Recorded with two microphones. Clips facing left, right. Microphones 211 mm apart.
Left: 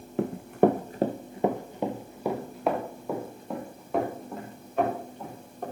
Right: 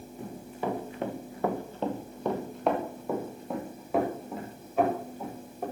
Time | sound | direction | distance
0.2 | running footsteps | 75° left (ahead or behind) | 1.0 m